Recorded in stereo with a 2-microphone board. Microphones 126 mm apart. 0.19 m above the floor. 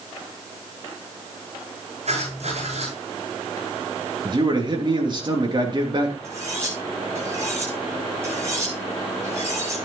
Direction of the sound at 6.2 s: 20° right (ahead or behind).